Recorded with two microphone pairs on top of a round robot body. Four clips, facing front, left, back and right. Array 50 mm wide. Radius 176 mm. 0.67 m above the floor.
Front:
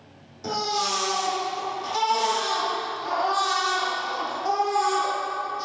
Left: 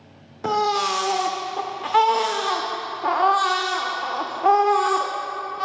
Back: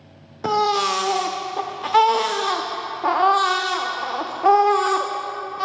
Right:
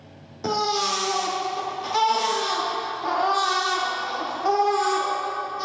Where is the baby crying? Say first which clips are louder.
Left 3 dB, back 8 dB; 150° left, 0.8 m.